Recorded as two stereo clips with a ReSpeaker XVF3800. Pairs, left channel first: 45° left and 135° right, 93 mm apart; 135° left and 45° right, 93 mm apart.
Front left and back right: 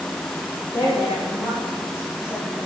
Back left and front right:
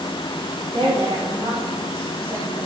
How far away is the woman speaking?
About 5.5 m.